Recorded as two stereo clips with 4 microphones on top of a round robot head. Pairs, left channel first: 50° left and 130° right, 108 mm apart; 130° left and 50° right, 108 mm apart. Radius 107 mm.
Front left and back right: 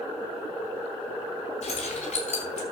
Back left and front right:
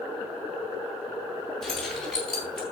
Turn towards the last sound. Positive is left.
turn(degrees=45)